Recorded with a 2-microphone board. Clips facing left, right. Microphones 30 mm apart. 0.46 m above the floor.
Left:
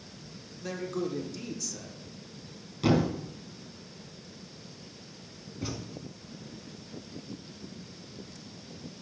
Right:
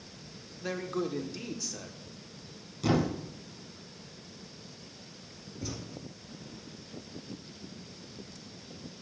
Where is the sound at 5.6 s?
45° left (ahead or behind), 1.8 m.